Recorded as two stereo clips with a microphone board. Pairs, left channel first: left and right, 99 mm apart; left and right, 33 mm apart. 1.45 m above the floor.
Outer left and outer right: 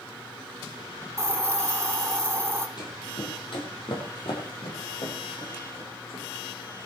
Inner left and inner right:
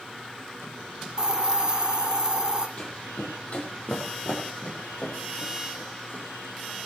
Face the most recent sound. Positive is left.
turn(degrees=75)  # may be behind; listen again after turning